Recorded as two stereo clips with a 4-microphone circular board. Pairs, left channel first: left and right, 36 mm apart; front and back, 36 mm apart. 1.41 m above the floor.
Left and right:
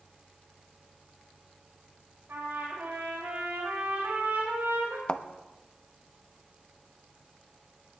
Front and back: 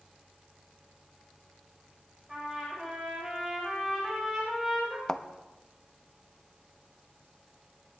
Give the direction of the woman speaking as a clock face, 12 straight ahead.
No woman speaking in this recording.